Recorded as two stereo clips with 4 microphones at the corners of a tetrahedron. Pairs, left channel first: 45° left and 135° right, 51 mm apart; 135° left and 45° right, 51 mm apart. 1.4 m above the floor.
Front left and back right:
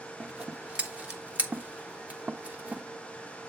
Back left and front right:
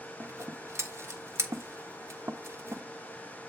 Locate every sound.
0.2 s scissors: 75° right, 1.2 m